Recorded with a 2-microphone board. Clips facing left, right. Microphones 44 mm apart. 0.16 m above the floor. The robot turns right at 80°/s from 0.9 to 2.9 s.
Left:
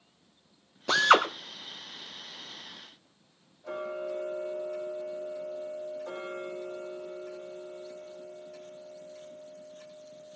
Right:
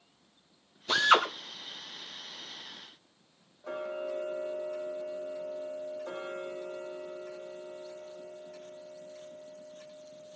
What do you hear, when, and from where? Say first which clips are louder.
0.9 s a drill: left 2 dB; 80° left, 4 m; by 1.3 s 55° left (ahead or behind), 4 m
3.6 s ticking: left 1 dB; 30° right (ahead or behind), 7.5 m